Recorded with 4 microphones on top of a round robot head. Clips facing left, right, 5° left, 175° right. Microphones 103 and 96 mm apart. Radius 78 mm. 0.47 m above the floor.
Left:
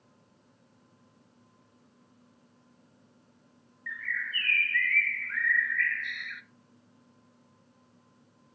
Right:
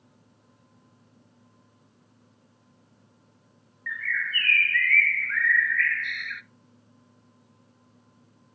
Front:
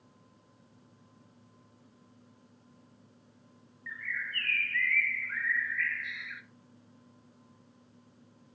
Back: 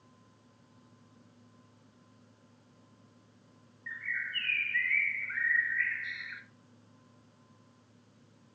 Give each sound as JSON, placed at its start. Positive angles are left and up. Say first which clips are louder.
{"t": 3.9, "sound": "a bird", "louder": "right 5 dB, even", "azimuth_deg": -50, "distance_m": 0.6}